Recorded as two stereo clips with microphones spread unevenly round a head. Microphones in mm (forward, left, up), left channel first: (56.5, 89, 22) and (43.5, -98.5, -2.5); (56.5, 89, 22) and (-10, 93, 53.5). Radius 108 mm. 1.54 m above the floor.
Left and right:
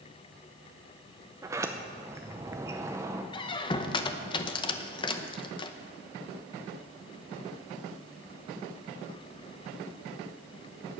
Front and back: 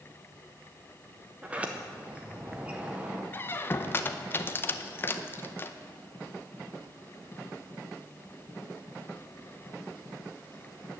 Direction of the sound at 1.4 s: 170° right.